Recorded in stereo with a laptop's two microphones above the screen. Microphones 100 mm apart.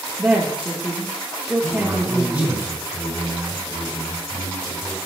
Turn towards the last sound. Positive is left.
turn(degrees=-25)  # may be behind; listen again after turning